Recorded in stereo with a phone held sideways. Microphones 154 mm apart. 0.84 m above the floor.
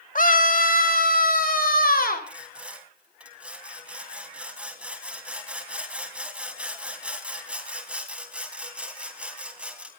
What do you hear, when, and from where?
0.1 s a scream: 60° left (ahead or behind), 2 m; by 2.3 s 70° left (ahead or behind), 5 m
2.3 s sawing: 5° right (ahead or behind), 3 m